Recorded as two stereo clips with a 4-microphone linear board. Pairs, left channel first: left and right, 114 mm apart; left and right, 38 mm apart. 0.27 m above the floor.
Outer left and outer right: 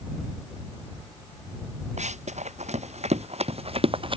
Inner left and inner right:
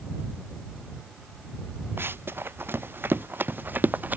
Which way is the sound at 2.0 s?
85° right.